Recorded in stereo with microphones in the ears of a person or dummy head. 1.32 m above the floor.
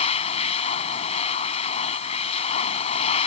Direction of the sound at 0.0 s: 35° left (ahead or behind).